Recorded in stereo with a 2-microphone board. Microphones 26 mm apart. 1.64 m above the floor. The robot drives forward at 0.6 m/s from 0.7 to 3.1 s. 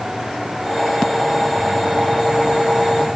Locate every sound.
Only background noise.